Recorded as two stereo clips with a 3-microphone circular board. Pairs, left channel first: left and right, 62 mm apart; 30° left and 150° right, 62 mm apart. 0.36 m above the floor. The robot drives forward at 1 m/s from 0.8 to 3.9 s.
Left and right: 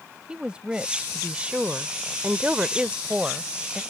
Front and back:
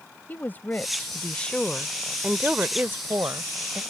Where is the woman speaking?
20° right; by 3.8 s 165° right.